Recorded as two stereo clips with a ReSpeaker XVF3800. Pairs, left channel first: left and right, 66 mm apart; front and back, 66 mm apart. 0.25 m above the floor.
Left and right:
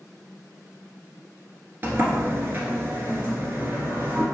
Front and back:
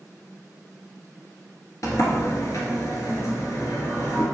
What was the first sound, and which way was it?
A sliding door, 35° right.